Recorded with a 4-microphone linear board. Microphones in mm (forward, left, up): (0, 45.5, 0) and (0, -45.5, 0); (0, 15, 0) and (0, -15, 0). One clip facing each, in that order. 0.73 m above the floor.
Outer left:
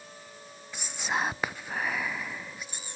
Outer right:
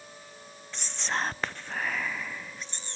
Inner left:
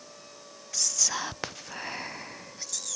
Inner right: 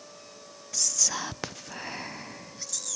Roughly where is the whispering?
Centre.